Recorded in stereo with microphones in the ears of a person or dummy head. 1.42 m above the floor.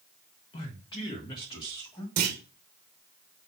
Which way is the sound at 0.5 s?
25° left (ahead or behind).